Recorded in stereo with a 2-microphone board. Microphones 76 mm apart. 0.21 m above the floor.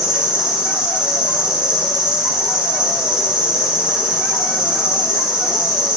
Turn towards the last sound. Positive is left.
turn(degrees=-15)  # may be behind; listen again after turning